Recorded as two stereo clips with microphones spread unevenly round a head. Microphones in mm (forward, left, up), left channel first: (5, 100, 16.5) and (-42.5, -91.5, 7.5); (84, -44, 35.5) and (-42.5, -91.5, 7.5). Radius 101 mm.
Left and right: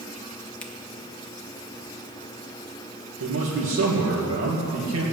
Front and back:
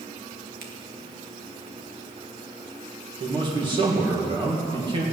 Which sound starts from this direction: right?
A man speaking, at 3.2 s.